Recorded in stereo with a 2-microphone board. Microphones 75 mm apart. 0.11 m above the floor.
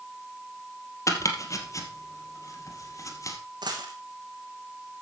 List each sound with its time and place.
1.1 s chopping: 45° left (ahead or behind), 2.5 m
3.6 s a dropped coin: 80° right, 3 m